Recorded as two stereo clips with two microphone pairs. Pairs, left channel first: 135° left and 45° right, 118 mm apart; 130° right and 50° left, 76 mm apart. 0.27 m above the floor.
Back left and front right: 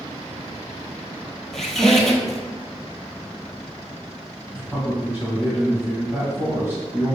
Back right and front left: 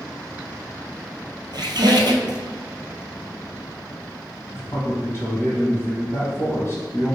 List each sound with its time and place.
1.5 s a squeak: 40° left, 0.6 m
4.5 s a man speaking: 105° right, 1.6 m